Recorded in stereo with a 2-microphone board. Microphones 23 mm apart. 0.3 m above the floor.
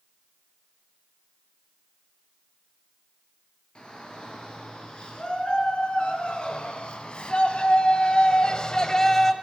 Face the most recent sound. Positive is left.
turn(degrees=20)  # may be behind; listen again after turning